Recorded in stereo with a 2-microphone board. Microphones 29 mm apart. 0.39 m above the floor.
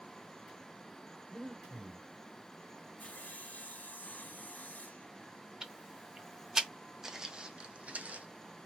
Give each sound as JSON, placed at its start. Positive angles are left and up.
{"t": 1.3, "sound": "breathing", "side_deg": 25, "distance_m": 1.0}
{"t": 3.0, "sound": "sawing", "side_deg": 85, "distance_m": 0.9}
{"t": 5.6, "sound": "ticking", "side_deg": -20, "distance_m": 0.7}
{"t": 7.0, "sound": "footsteps", "side_deg": -15, "distance_m": 0.8}